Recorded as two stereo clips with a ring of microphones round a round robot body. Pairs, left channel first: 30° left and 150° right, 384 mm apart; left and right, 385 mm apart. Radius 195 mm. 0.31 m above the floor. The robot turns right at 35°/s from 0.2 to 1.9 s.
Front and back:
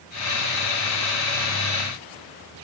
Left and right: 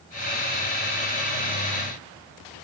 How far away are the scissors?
I don't hear scissors.